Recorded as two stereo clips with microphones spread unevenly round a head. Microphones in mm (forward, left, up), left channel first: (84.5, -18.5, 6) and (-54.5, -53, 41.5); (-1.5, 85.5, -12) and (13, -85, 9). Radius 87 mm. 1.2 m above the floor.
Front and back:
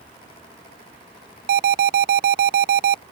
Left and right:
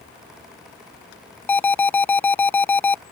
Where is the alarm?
170° left.